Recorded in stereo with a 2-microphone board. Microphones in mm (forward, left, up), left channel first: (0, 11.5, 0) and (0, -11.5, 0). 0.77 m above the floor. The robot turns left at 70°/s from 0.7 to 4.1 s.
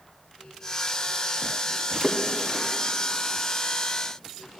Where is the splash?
20° right (ahead or behind), 1.6 m; by 2.7 s 25° left (ahead or behind), 1.6 m.